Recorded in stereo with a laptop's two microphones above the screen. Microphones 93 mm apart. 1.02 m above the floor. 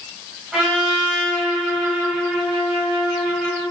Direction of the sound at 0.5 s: 5° right (ahead or behind).